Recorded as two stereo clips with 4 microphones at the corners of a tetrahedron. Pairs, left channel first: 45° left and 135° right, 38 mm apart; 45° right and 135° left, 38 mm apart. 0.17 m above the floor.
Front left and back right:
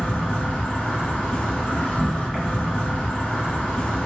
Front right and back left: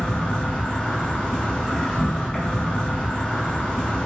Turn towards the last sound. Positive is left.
turn(degrees=-5)